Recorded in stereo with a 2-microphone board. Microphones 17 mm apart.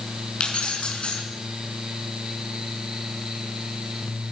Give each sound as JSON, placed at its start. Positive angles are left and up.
{"t": 0.4, "sound": "keys jangling", "side_deg": 85, "distance_m": 6.5}